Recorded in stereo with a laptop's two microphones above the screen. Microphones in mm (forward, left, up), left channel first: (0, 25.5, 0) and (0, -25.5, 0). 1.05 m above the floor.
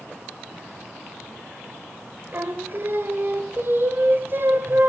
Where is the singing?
45° right (ahead or behind), 1.4 m.